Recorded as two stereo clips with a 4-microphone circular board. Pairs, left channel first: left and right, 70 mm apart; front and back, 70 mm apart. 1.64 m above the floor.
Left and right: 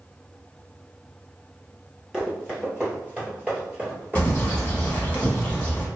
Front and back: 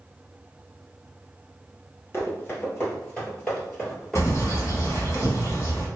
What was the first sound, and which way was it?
Running footsteps, 20° right.